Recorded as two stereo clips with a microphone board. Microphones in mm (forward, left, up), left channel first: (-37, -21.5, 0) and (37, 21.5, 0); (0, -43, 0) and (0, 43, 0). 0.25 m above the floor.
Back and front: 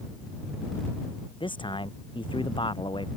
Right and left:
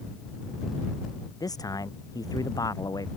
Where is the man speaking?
135° right.